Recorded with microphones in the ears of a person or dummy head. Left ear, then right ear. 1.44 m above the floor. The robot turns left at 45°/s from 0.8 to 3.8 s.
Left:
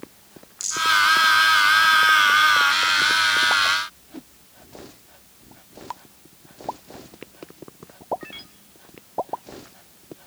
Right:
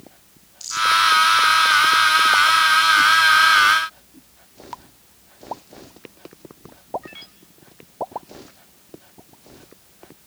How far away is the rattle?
About 6 m.